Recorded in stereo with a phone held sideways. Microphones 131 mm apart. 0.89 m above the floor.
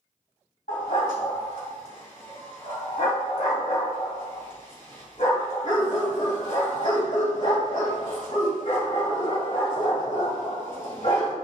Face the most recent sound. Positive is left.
turn(degrees=60)  # may be behind; listen again after turning